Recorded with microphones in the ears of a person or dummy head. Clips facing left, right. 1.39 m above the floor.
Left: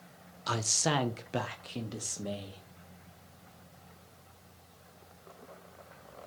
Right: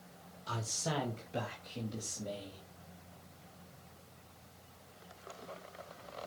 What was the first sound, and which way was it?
A man speaking, 75° left (ahead or behind).